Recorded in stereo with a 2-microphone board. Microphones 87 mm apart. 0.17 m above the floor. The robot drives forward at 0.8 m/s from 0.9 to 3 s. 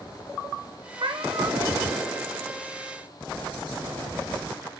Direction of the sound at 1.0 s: 60° right (ahead or behind).